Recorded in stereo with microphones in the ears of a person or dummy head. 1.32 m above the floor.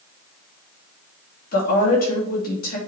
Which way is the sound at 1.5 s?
45° left (ahead or behind).